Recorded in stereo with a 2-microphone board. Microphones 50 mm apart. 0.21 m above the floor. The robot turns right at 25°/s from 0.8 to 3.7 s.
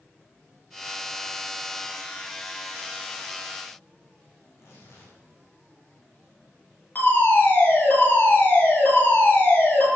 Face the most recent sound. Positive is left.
turn(degrees=40)  # may be behind; listen again after turning